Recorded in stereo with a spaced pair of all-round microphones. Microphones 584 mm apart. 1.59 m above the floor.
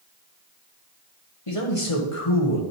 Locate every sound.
1.5 s a man speaking: 60° left (ahead or behind), 2 m